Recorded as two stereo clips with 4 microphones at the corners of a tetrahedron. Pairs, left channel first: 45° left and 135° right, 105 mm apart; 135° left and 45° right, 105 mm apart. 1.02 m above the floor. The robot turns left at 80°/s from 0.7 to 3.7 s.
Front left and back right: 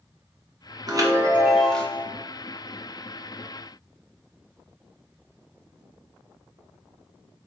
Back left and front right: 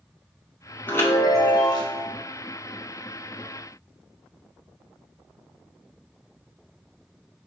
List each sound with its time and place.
0.9 s a chime: 165° right, 0.9 m; by 2.0 s 105° left, 0.9 m